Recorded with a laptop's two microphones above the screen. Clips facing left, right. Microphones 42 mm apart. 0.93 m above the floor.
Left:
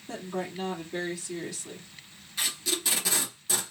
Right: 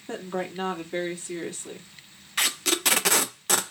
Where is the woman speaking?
45° right (ahead or behind), 2 m.